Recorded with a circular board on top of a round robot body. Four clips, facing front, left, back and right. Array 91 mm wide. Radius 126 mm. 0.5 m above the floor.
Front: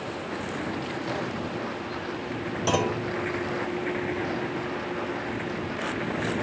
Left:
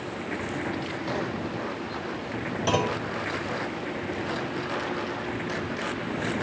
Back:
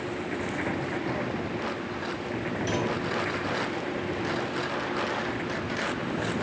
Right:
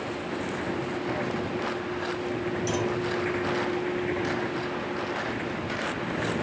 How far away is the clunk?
About 1.5 m.